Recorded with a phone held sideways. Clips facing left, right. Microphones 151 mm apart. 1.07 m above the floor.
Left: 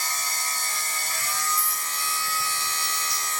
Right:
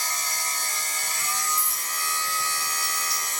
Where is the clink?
30° right (ahead or behind), 1.9 m.